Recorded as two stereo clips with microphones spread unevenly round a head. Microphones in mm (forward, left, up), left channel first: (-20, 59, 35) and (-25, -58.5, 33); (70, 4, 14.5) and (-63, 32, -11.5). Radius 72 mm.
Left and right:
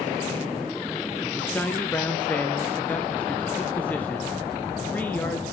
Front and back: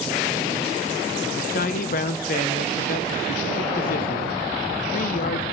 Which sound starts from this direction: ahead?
A man speaking, at 1.4 s.